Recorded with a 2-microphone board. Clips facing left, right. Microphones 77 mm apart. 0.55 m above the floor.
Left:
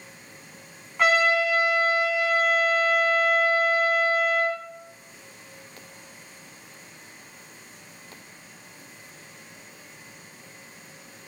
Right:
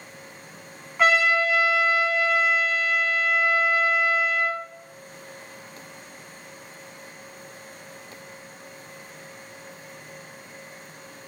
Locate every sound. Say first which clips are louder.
1.0 s a trumpet: right 1 dB; centre (ahead or behind), 1.0 m